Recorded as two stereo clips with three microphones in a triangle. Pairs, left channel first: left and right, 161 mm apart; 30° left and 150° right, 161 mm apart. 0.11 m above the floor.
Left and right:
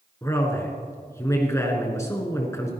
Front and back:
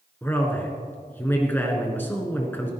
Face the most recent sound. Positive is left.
turn(degrees=75)